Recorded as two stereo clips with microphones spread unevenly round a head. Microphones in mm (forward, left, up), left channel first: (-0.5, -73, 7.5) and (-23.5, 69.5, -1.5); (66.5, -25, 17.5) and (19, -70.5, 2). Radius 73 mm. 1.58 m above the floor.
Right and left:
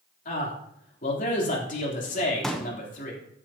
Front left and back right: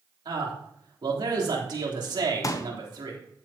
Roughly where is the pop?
Ahead.